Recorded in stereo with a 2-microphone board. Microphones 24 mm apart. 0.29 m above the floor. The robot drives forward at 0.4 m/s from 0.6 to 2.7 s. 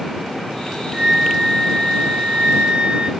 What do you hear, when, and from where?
0.9 s a flute: 30° right (ahead or behind), 0.8 m; by 3.1 s 55° right (ahead or behind), 0.5 m